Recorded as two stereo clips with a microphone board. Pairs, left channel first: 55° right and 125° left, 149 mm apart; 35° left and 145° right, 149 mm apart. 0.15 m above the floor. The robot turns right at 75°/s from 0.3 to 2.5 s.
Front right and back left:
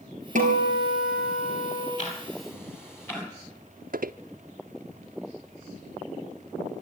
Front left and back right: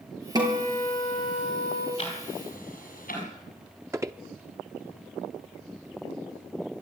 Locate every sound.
0.3 s a guitar: 155° left, 4.5 m; by 1.9 s 95° right, 4.5 m
2.0 s ticking: 20° right, 6 m; by 3.2 s 20° left, 6 m
3.9 s footsteps: 145° left, 0.6 m